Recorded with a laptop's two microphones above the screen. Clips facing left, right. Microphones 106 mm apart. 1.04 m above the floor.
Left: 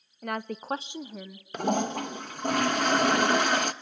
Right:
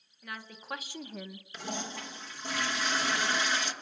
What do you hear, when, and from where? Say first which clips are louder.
0.2 s a woman speaking: left 11 dB; 55° left (ahead or behind), 0.7 m; by 1.4 s centre (ahead or behind), 1.2 m
1.5 s a toilet flushing: left 12 dB; 55° left (ahead or behind), 0.9 m